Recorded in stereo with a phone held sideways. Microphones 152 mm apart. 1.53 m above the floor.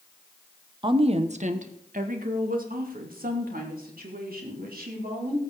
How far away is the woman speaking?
About 1.0 m.